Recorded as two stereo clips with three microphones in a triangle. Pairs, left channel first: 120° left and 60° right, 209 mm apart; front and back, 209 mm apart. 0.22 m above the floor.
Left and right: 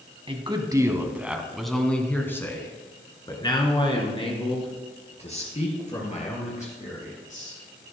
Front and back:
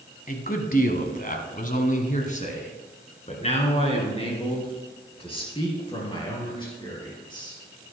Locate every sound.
0.3 s a man speaking: 10° right, 1.4 m; by 7.6 s 65° left, 5 m